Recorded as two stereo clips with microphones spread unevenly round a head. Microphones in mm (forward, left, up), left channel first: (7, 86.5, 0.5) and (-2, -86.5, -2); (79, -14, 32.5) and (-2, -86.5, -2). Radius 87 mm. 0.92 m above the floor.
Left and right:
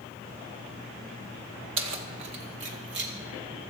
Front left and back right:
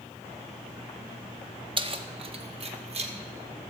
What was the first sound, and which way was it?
Keys jangling, 105° right.